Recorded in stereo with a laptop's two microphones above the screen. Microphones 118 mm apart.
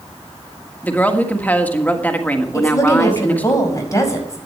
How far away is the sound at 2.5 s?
About 5.5 m.